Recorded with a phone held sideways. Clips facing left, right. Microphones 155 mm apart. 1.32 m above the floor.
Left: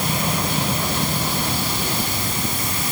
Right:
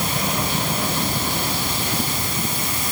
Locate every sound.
Only background noise.